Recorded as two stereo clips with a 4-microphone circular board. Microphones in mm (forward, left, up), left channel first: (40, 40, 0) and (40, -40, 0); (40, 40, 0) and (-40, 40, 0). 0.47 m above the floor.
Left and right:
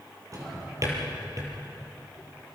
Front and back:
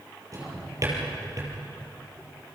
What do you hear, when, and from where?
0.3 s a drawer: 135° right, 5.5 m